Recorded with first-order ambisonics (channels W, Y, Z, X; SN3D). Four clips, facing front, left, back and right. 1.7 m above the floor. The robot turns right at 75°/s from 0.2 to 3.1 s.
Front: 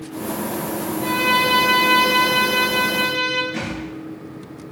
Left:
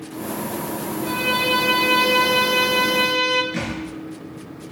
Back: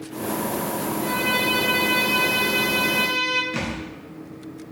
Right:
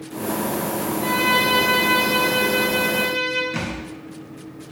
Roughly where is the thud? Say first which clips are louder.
Left 1 dB, front 1 dB; behind right.